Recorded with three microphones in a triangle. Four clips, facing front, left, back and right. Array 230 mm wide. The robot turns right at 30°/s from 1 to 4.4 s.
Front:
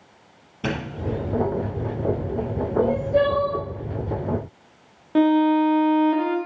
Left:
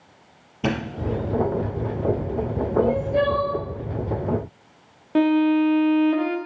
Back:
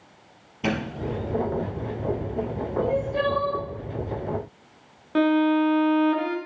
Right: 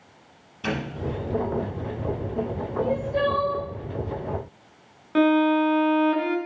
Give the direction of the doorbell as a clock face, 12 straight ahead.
9 o'clock.